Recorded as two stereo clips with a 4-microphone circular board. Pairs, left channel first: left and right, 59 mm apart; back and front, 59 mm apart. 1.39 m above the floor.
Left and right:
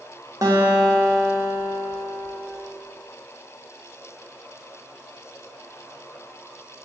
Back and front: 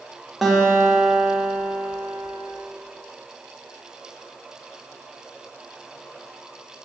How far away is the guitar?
About 1.3 m.